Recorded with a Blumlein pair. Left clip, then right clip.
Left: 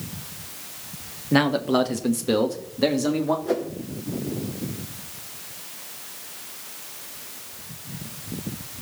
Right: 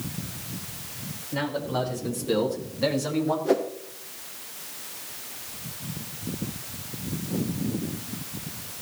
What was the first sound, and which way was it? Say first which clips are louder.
A man speaking: left 8 dB; 45° left.